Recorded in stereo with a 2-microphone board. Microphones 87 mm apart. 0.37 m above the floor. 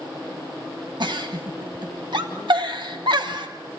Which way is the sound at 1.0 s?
65° right (ahead or behind).